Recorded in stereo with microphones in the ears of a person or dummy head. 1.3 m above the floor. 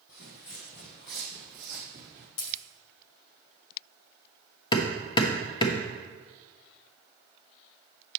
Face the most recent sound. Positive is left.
turn(degrees=30)  # may be behind; listen again after turning